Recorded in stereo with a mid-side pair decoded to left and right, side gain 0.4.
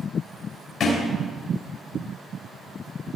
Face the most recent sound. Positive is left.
turn(degrees=65)